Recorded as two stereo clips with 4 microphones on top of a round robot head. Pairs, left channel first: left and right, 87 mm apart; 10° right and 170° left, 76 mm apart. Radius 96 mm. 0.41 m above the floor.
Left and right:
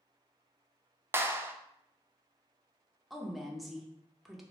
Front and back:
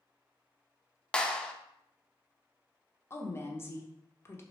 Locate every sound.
1.1 s a clap: 75° right, 0.6 m
3.1 s a woman speaking: straight ahead, 0.8 m